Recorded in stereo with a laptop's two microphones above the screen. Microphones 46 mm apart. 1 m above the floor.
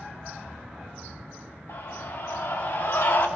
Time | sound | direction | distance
1.7 | a scream | 80° left | 2.5 m